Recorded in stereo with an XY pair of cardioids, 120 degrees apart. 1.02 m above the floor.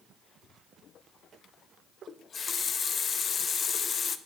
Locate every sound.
2.1 s a running tap: 35° left, 0.5 m